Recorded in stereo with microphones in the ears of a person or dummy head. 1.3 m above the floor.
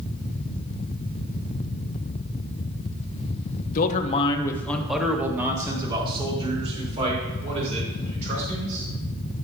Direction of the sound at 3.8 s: 50° left (ahead or behind).